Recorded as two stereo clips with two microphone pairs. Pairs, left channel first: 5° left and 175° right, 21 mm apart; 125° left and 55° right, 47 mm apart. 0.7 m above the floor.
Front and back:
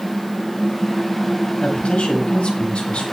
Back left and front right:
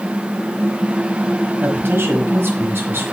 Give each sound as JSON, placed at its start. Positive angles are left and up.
{"t": 1.6, "sound": "a man speaking", "azimuth_deg": -25, "distance_m": 4.0}